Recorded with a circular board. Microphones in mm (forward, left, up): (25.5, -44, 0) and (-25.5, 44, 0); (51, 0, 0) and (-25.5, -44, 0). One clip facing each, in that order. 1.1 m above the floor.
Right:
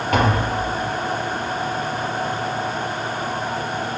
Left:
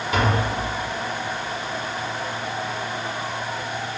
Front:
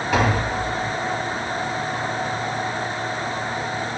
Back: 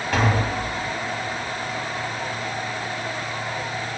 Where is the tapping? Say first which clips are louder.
Right 3 dB, front 1 dB; 55° right, 3 m.